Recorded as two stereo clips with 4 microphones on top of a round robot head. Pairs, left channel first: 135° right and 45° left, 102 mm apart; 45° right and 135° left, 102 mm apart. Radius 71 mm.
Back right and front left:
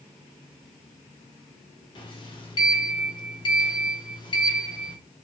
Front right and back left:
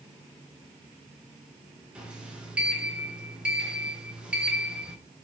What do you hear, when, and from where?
1.9 s a sliding door: 150° right, 1.3 m